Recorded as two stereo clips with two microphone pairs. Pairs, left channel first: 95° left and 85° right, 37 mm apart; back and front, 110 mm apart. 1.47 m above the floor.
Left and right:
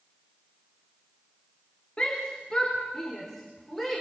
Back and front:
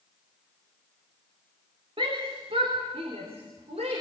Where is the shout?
30° left, 3 m; by 4.0 s 5° left, 5 m.